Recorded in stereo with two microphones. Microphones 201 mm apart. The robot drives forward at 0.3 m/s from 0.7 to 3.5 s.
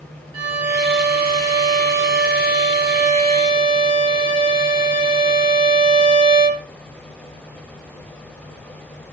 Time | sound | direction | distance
0.3 | a violin | 25° right (ahead or behind) | 1.6 m